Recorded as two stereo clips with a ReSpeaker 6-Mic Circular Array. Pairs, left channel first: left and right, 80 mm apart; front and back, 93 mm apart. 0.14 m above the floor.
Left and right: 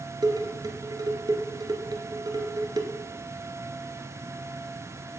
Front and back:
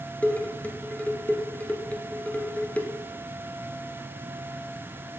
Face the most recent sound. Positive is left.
turn(degrees=-70)